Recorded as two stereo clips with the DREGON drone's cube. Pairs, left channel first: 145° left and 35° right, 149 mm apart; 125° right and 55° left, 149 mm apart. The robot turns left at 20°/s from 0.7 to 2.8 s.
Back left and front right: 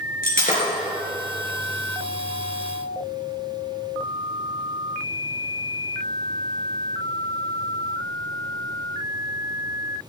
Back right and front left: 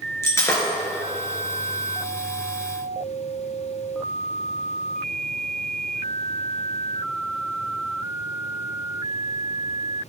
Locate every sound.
0.2 s breaking glass: 165° left, 3 m